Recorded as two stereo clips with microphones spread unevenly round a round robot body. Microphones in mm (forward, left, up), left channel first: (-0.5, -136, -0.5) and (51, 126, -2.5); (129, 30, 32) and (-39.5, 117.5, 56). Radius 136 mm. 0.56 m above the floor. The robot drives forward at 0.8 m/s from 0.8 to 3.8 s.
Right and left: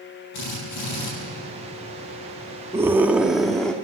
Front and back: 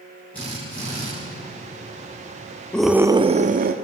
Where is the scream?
20° left, 0.7 m; by 3.7 s 175° left, 0.9 m.